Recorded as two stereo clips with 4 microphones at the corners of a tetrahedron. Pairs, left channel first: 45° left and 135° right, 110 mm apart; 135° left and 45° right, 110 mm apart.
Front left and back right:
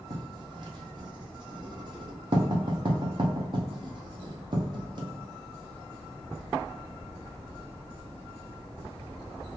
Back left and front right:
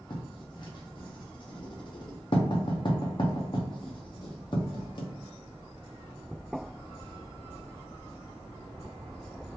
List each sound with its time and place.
0.1 s writing: straight behind, 0.7 m